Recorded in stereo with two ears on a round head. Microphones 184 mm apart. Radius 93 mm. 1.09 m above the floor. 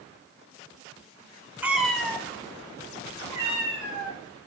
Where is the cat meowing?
10° right (ahead or behind), 0.6 m; by 4.2 s 35° left (ahead or behind), 1.7 m.